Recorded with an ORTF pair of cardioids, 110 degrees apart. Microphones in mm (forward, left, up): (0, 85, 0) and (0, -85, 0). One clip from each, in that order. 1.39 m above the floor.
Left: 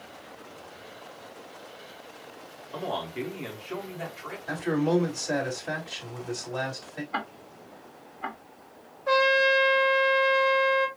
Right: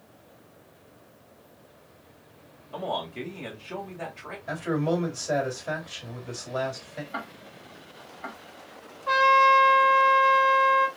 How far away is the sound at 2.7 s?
About 2 m.